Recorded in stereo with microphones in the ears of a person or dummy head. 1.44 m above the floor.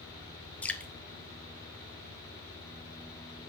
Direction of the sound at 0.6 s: 5° left (ahead or behind).